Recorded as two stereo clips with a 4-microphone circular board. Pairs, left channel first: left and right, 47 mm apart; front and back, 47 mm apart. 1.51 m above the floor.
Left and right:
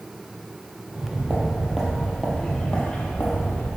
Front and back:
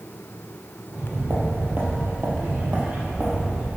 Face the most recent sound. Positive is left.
turn(degrees=120)